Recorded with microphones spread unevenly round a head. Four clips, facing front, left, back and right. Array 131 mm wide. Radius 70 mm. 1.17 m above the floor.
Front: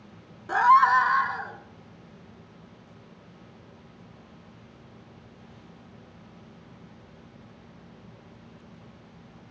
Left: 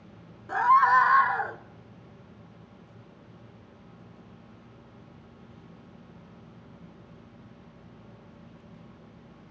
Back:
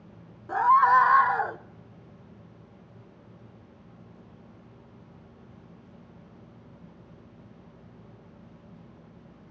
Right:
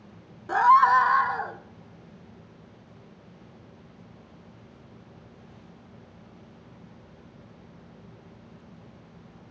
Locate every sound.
0.5 s a scream: 55° right, 0.6 m; by 1.6 s 175° right, 0.8 m